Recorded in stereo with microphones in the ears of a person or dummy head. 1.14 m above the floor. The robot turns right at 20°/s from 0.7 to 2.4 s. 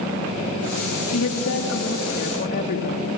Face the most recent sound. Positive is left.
turn(degrees=50)  # may be behind; listen again after turning